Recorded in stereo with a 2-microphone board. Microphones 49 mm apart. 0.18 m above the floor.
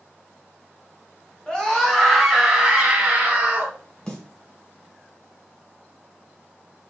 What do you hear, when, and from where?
1.5 s a scream: 20° left (ahead or behind), 1.2 m; by 3.8 s 35° right (ahead or behind), 1.5 m
4.1 s a snare drum: 15° left (ahead or behind), 1.3 m